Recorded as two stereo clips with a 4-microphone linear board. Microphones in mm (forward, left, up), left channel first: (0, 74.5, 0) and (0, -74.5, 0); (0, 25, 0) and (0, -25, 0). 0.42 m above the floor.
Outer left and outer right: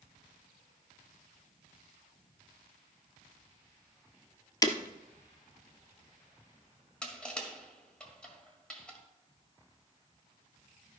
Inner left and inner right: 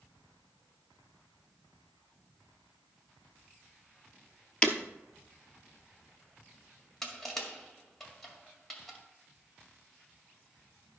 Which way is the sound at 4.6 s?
25° left (ahead or behind).